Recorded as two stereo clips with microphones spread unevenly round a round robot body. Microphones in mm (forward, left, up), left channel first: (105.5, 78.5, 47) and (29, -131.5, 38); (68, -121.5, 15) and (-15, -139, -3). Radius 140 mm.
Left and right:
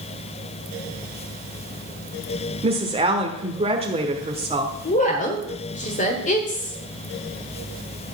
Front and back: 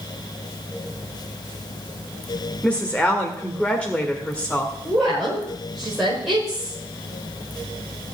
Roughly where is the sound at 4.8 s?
Behind left.